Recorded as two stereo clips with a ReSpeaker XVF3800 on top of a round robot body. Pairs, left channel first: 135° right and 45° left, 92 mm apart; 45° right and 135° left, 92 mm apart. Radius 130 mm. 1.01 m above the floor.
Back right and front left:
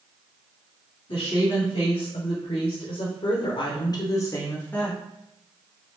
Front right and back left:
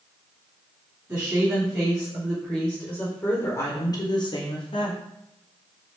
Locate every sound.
1.1 s a woman speaking: 160° right, 1.5 m; by 5.0 s 55° right, 1.0 m